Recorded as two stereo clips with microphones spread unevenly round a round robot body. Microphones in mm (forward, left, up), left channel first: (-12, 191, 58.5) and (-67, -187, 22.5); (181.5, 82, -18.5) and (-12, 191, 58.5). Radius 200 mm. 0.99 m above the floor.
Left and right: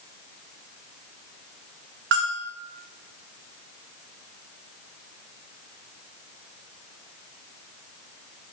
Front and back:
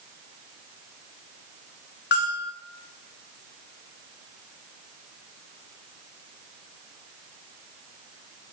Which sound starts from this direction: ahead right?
A bell, at 2.1 s.